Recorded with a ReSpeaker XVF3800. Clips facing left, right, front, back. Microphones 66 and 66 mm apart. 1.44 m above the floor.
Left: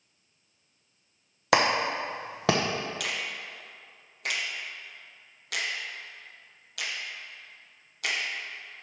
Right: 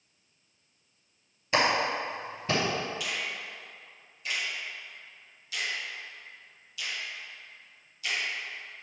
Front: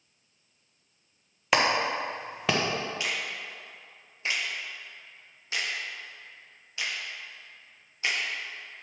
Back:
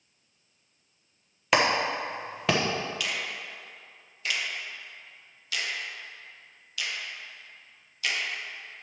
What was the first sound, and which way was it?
A clap, 90° left.